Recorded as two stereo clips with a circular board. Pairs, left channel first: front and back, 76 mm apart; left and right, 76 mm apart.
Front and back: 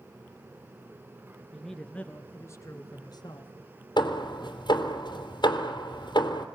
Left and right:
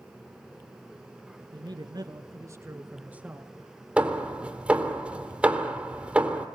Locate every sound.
1.5 s a man speaking: 85° right, 2.5 m; by 3.5 s 10° right, 3 m
4.0 s hammering: 15° right, 3 m